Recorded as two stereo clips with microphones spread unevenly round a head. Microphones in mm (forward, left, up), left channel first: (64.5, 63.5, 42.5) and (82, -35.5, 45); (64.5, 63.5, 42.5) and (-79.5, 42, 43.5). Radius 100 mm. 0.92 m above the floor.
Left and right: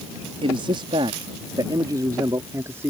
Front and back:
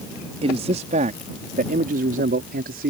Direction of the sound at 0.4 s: 120° right.